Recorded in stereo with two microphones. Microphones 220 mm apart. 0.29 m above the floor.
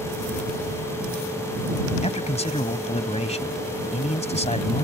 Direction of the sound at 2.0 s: 30° left (ahead or behind).